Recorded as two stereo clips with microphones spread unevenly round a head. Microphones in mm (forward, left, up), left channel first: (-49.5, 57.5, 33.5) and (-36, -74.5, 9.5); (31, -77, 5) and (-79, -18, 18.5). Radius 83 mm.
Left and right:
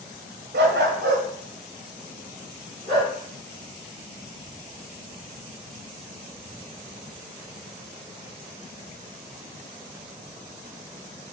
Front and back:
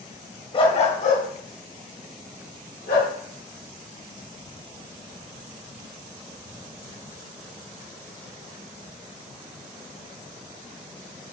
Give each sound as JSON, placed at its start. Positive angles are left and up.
{"t": 0.5, "sound": "a dog barking", "azimuth_deg": -75, "distance_m": 1.7}